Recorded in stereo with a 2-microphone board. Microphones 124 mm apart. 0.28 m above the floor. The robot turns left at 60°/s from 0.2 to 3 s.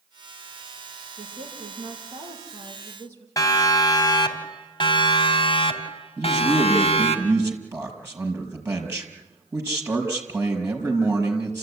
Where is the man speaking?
20° right (ahead or behind), 5.5 m.